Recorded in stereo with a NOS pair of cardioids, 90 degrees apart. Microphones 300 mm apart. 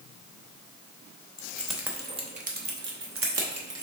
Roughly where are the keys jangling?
Ahead.